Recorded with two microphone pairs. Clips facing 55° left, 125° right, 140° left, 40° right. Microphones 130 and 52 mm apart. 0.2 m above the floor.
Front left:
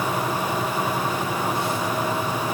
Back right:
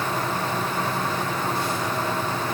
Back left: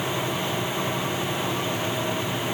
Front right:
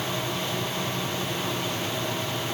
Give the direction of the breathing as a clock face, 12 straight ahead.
No breathing in this recording.